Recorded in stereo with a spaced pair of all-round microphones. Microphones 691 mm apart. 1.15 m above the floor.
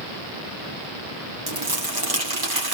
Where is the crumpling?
40° right (ahead or behind), 2.5 m.